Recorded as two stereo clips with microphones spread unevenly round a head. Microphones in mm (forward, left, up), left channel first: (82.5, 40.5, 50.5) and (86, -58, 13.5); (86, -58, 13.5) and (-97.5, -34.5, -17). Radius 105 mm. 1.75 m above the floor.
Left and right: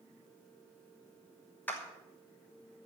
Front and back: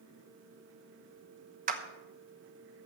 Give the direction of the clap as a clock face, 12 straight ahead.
8 o'clock.